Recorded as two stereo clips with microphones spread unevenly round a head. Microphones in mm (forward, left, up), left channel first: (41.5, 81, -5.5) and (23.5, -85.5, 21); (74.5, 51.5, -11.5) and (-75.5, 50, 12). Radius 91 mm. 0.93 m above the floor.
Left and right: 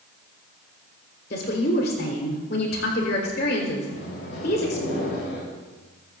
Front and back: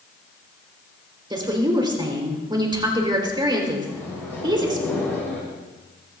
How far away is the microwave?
About 7 m.